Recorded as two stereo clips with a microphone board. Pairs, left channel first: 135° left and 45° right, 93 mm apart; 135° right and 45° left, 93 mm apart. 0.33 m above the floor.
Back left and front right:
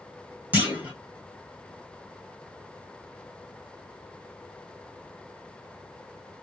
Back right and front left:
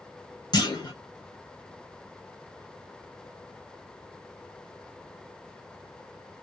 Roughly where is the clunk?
Behind right.